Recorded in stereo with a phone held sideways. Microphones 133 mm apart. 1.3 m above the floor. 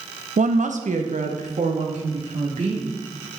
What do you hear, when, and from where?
0.4 s a woman speaking: 70° right (ahead or behind), 0.6 m; by 3.0 s 65° right (ahead or behind), 3 m